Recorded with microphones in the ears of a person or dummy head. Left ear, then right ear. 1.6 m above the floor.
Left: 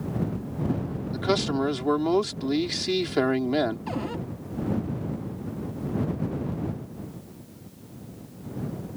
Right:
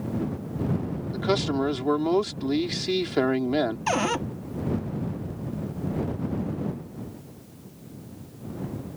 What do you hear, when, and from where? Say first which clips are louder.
1.1 s a man speaking: even; centre (ahead or behind)
3.9 s a cupboard door: right 8 dB; 40° right (ahead or behind)